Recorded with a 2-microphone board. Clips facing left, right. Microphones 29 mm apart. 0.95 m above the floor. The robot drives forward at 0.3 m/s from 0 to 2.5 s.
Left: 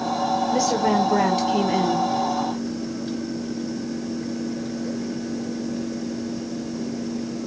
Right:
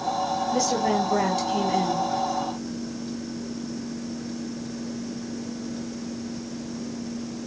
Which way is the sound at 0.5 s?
15° left (ahead or behind).